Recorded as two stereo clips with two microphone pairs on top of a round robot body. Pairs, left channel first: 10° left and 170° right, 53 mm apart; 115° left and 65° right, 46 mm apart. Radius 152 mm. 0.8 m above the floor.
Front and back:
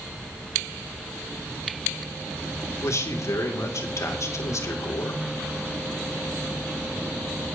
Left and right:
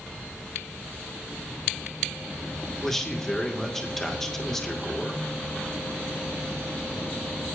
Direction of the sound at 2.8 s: 35° left.